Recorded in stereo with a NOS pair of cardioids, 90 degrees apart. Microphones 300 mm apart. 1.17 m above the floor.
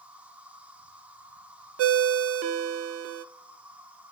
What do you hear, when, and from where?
0.0 s an insect: 5° right, 1.6 m
1.8 s a ringtone: 50° right, 0.5 m